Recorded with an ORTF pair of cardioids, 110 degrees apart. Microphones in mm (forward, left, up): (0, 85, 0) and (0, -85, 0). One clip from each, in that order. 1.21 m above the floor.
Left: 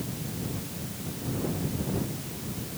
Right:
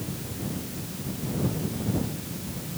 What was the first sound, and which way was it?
Only background noise.